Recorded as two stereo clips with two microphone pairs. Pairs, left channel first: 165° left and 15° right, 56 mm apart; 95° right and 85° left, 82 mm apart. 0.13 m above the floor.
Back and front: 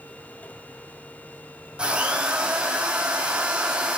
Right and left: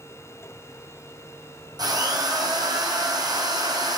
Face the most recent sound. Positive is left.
turn(degrees=55)